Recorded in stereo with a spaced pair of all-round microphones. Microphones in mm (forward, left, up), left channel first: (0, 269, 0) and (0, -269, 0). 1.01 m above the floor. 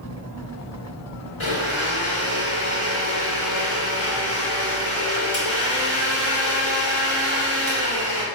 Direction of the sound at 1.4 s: 60° left (ahead or behind).